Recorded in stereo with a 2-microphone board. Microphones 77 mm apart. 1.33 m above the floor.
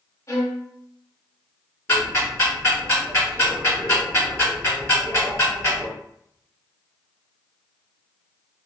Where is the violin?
45° left (ahead or behind), 1.0 m.